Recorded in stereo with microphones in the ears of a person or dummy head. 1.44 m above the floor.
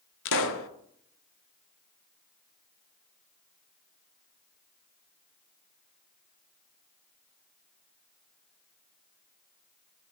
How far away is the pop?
About 0.7 m.